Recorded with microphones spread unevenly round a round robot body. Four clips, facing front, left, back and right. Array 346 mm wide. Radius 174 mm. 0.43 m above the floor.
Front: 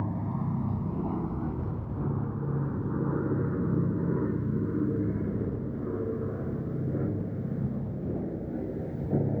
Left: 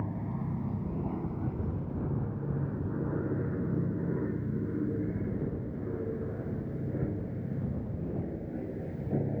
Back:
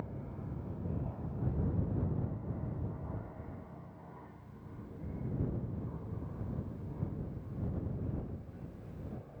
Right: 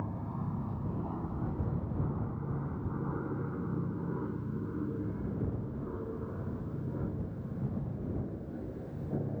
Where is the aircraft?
10° left.